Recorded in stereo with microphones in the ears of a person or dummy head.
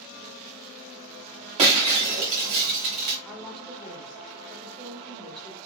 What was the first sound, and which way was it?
Breaking glass, 20° right (ahead or behind).